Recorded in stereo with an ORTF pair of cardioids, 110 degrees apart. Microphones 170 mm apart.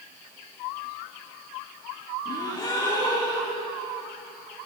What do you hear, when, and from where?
2.2 s a gasp: 25° left, 5 m